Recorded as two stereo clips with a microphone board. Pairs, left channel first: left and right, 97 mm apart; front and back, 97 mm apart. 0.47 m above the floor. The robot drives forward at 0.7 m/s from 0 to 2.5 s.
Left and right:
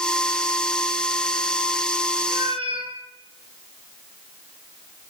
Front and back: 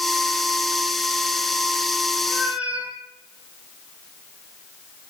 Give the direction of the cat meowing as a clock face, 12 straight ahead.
3 o'clock.